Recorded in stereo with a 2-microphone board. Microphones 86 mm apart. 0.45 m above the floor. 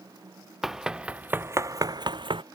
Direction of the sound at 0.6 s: 5° right (ahead or behind).